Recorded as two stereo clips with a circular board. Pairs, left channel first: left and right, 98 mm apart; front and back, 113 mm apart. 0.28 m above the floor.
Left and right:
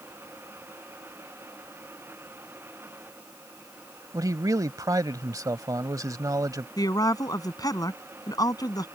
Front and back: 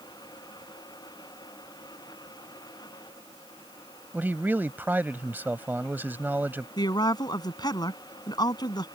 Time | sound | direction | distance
4.1 | a man speaking | 115° right | ?
6.8 | a woman speaking | 45° left | ?